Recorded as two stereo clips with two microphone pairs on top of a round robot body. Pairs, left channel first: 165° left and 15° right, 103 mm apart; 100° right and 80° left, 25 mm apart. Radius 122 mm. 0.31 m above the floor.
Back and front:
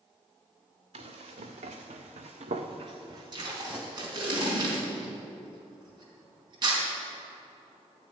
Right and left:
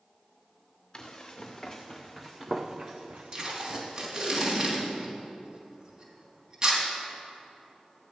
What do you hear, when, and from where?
0.9 s running footsteps: 40° right, 2.5 m; by 4.2 s 60° left, 2.5 m
3.3 s tape being pulled: 30° left, 3.5 m